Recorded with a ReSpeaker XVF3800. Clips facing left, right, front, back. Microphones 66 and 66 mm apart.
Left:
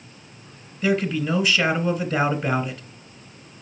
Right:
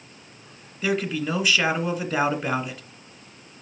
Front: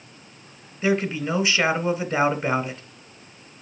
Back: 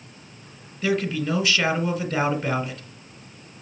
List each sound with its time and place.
0.8 s a man speaking: 5° right, 1.5 m